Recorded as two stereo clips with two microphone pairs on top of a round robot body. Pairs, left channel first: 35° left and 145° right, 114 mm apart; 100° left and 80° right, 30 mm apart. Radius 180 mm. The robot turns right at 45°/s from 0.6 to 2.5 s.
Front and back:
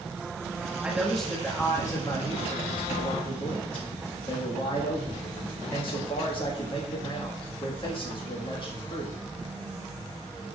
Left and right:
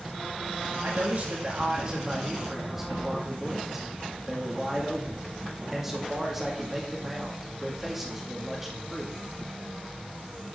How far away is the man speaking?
About 1.8 m.